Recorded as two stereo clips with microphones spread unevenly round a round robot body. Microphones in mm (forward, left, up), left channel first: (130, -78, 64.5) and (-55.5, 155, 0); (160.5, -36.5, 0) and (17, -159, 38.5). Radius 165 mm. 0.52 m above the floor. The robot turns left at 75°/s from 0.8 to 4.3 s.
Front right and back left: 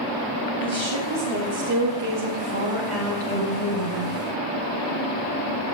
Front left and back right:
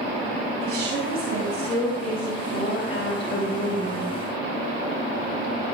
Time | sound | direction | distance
0.6 | a woman speaking | 165° right | 5 m